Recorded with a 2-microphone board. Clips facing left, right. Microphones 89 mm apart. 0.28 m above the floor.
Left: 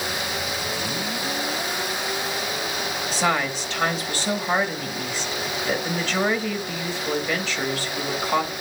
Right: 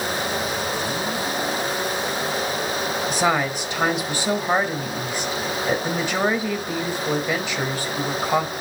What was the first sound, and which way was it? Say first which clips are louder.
A woman speaking: right 1 dB; 15° right (ahead or behind).